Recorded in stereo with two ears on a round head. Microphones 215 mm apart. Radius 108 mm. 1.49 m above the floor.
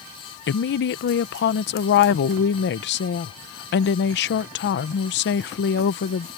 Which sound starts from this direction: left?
A woman speaking, at 0.5 s.